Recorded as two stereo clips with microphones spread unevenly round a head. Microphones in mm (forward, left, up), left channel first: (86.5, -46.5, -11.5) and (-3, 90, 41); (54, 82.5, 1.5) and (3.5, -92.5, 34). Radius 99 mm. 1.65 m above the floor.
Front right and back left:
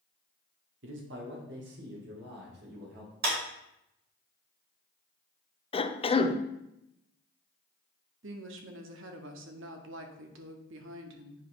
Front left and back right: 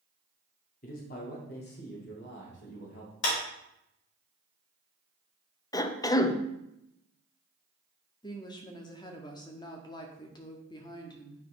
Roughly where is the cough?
Ahead.